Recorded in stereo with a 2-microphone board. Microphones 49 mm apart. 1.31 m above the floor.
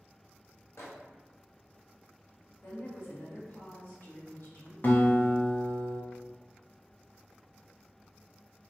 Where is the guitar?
45° left (ahead or behind), 0.6 m.